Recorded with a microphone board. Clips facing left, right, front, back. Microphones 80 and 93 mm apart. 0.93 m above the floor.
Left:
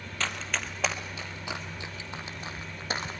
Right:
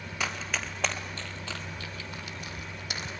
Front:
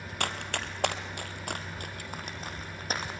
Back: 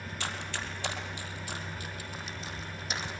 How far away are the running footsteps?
About 1.8 m.